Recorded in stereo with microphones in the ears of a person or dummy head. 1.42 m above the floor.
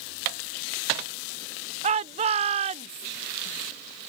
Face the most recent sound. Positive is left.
turn(degrees=-40)  # may be behind; listen again after turning